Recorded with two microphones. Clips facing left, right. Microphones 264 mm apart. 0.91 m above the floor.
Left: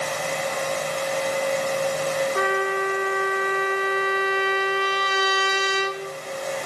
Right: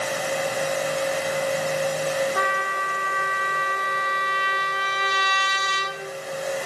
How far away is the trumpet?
About 1.1 m.